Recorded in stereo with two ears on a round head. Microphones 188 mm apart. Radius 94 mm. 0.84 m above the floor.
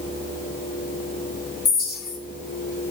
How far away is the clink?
About 2.0 m.